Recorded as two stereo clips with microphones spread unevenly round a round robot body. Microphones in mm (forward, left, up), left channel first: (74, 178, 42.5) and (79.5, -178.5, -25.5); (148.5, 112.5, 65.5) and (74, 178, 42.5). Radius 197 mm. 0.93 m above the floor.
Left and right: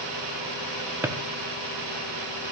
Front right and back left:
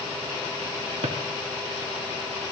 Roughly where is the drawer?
Behind.